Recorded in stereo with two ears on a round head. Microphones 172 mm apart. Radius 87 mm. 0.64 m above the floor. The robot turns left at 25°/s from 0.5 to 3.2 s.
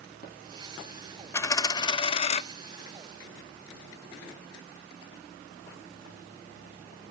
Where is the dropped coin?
15° left (ahead or behind), 0.5 m; by 2.4 s 35° left (ahead or behind), 0.5 m.